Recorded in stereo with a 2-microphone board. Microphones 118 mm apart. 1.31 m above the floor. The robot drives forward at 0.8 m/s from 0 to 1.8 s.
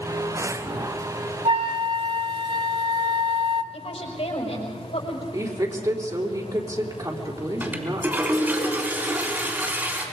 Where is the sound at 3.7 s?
65° left (ahead or behind), 6 m.